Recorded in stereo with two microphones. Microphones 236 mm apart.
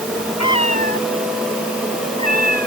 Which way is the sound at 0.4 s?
85° left.